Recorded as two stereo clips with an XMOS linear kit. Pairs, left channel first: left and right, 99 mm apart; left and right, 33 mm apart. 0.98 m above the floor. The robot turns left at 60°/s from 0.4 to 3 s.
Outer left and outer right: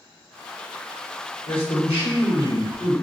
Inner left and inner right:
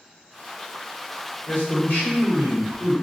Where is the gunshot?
No gunshot in this recording.